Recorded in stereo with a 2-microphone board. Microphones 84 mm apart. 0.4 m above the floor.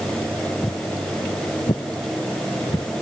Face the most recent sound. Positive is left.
turn(degrees=65)  # may be behind; listen again after turning